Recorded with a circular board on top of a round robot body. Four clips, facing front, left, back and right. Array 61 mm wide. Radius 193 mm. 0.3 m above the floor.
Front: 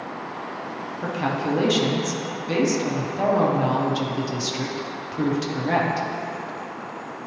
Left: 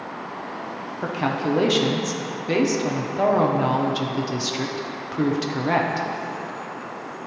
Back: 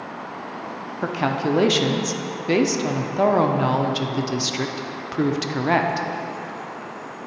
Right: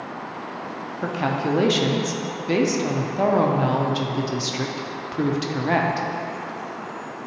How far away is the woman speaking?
About 0.9 m.